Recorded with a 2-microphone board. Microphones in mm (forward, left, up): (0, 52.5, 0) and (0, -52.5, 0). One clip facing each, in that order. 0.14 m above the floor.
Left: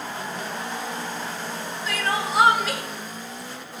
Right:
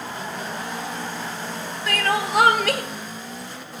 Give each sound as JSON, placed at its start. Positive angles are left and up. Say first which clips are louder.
{"t": 1.9, "sound": "crying", "louder": "right 3 dB", "side_deg": -70, "distance_m": 0.7}